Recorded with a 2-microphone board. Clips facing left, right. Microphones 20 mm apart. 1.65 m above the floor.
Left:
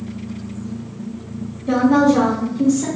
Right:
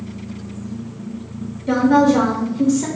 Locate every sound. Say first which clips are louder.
1.7 s a woman speaking: even; 10° right (ahead or behind), 0.5 m